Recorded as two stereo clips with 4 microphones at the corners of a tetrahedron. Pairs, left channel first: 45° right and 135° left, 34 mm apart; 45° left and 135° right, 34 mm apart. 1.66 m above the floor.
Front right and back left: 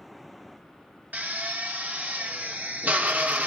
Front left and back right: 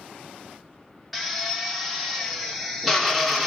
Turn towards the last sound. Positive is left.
turn(degrees=135)